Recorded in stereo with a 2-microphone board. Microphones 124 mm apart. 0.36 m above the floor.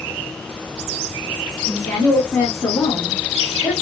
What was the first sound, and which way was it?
A woman speaking, 20° left (ahead or behind).